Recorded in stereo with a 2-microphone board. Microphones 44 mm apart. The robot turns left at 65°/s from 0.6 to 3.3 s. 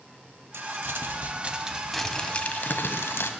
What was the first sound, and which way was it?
Crumpling, 95° right.